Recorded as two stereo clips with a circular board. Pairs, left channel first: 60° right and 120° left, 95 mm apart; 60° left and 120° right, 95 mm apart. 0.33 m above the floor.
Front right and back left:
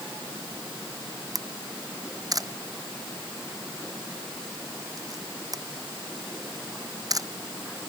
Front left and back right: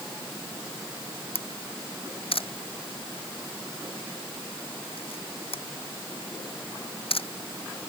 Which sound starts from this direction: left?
A camera shutter, at 1.4 s.